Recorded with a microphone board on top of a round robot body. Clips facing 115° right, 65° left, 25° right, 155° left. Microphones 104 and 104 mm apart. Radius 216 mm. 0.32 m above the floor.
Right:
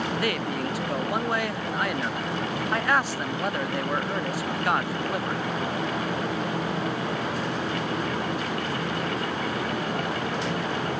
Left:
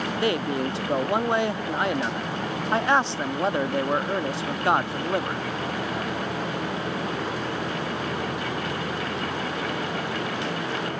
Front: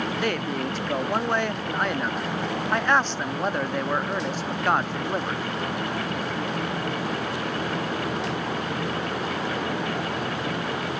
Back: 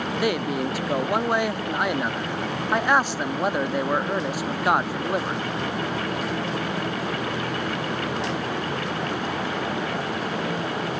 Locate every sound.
0.2 s a man speaking: 90° left